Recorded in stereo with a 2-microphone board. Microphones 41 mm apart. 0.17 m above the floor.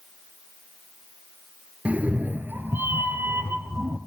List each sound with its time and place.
1.9 s a cat meowing: 35° right (ahead or behind), 1.2 m; by 4.0 s 75° right (ahead or behind), 1.9 m